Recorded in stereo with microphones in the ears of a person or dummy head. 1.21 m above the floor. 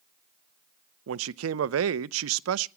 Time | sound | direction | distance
1.1 | a man speaking | 85° right | 0.5 m